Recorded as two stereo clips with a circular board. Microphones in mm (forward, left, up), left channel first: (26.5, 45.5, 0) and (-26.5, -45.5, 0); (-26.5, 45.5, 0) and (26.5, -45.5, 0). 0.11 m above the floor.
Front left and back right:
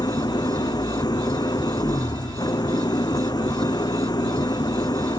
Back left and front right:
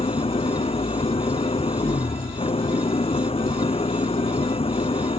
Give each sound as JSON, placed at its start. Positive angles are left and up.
{"t": 0.0, "sound": "an engine running", "azimuth_deg": 105}